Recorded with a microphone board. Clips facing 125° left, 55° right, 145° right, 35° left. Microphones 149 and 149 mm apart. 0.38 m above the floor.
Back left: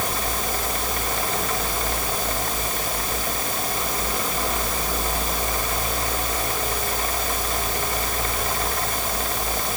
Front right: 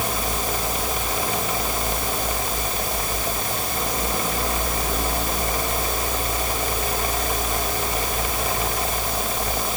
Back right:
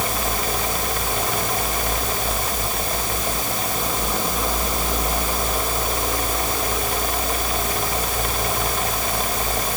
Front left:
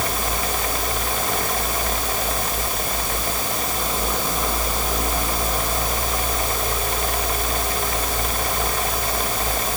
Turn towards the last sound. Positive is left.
No sound to turn to.